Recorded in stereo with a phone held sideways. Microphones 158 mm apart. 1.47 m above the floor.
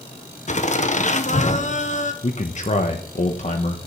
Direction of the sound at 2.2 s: 50° left (ahead or behind).